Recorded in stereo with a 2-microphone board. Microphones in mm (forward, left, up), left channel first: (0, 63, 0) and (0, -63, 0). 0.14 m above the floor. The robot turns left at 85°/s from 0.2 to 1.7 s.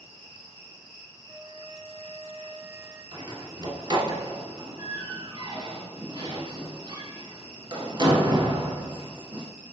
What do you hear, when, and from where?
0.0 s an insect: 120° right, 1.7 m; by 9.7 s 110° left, 1.7 m
1.3 s a flute: 45° right, 1.6 m; by 3.0 s 85° right, 1.6 m
3.1 s a door slam: 35° right (ahead or behind), 1.1 m